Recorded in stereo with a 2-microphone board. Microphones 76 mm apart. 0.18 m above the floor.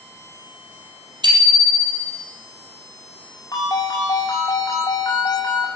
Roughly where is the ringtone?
Left.